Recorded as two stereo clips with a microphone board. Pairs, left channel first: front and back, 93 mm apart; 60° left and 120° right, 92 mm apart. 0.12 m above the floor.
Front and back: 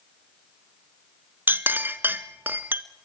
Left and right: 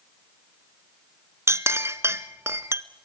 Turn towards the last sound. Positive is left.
turn(degrees=-140)